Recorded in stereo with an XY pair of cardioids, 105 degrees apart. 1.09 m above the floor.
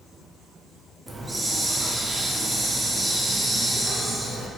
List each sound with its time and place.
1.1 s a hiss: 20° right, 0.5 m